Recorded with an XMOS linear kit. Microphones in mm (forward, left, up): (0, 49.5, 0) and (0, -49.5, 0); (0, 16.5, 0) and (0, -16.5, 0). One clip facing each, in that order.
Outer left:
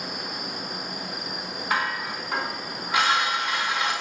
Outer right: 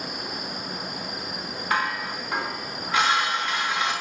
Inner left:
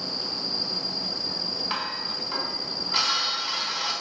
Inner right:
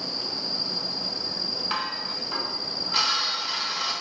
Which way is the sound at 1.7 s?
10° left (ahead or behind).